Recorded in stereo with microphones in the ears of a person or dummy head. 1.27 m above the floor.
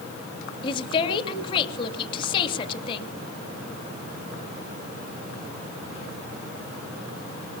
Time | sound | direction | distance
0.6 | a woman speaking | 25° left (ahead or behind) | 2.5 m